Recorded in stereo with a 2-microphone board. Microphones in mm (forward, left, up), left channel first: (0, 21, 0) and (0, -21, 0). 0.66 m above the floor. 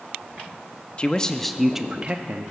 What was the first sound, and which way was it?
A man speaking, 30° left (ahead or behind).